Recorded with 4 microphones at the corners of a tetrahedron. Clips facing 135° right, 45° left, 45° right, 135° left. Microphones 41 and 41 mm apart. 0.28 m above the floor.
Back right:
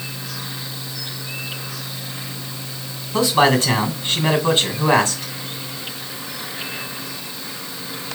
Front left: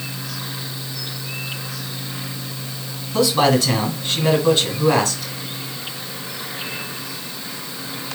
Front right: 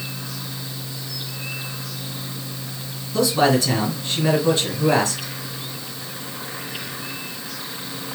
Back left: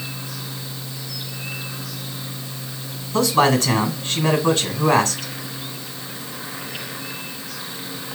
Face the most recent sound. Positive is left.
turn(degrees=170)